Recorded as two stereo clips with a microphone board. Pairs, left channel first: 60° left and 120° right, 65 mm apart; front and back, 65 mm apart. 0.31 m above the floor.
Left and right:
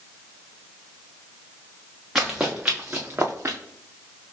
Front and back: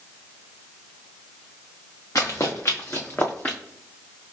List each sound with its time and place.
2.1 s running footsteps: 35° right, 1.5 m; by 3.6 s 70° right, 1.3 m